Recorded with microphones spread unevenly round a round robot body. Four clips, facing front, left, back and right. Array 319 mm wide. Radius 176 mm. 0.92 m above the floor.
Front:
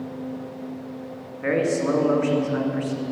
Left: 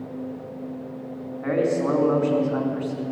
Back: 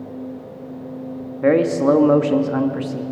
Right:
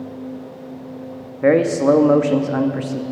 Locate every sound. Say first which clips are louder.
1.4 s a man speaking: right 8 dB, back 7 dB; 135° right, 2 m